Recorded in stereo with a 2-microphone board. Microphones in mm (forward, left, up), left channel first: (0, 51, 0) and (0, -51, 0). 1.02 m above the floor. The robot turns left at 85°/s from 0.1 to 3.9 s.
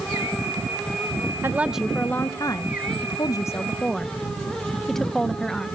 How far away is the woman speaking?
About 0.8 m.